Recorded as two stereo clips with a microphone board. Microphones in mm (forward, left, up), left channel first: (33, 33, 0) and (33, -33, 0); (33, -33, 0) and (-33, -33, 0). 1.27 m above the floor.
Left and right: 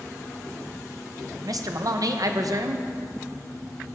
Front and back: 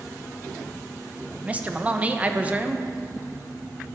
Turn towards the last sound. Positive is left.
turn(degrees=-110)